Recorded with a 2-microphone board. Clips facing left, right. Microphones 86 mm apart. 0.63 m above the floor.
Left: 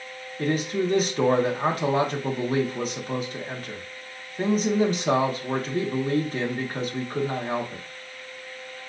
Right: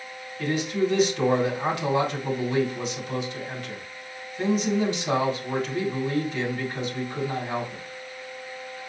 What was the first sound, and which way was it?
A man speaking, 35° left (ahead or behind).